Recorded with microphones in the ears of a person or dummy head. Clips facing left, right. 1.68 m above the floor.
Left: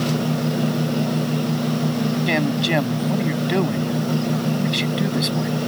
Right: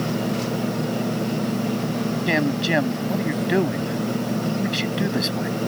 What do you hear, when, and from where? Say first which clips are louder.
2.3 s a man speaking: left 1 dB; 10° right (ahead or behind)